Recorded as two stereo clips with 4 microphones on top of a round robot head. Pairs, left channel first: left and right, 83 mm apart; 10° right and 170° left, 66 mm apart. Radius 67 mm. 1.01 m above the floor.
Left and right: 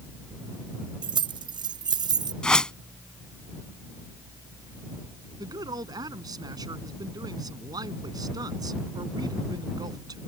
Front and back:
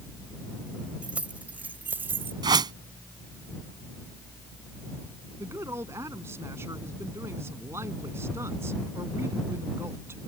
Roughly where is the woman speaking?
Behind right.